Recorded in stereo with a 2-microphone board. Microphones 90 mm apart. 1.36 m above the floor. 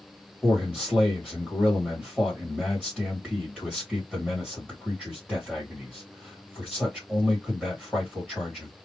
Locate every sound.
0.4 s a man speaking: centre (ahead or behind), 1.9 m